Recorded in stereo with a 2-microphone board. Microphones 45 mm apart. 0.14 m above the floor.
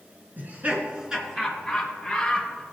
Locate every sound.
0.4 s laughter: 45° right (ahead or behind), 1.8 m; by 2.6 s 15° left (ahead or behind), 3.5 m